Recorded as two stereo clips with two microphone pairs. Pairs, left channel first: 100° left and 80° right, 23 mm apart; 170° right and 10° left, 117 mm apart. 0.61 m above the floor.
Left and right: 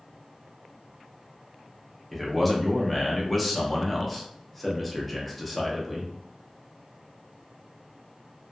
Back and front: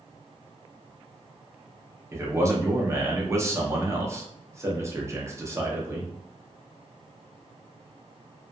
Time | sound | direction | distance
2.1 | a man speaking | 25° left | 0.6 m